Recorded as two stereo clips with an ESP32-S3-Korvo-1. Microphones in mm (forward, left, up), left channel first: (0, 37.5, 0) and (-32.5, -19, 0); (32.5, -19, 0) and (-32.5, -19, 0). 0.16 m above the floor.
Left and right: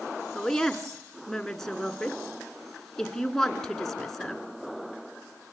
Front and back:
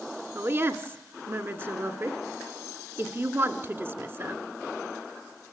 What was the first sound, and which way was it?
A woman speaking, 140° left.